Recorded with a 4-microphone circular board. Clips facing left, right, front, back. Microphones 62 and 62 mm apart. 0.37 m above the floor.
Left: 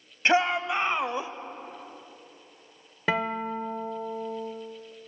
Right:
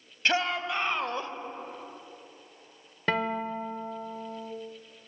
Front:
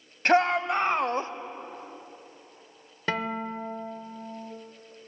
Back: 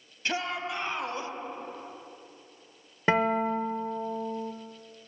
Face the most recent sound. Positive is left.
turn(degrees=160)